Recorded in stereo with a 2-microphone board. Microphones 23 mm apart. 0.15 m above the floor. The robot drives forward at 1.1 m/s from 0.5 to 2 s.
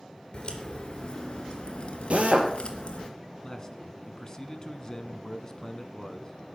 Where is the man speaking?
30° left (ahead or behind), 1.4 m.